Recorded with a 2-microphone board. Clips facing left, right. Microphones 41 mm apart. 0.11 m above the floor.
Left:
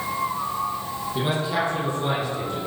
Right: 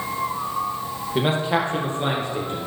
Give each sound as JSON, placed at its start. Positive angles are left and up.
{"t": 1.1, "sound": "a man speaking", "side_deg": -40, "distance_m": 3.5}